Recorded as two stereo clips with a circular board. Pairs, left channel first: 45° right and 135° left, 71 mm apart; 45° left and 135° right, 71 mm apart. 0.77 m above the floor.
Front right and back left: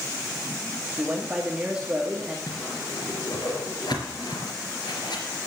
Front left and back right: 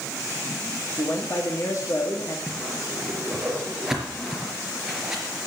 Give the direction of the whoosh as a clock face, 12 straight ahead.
2 o'clock.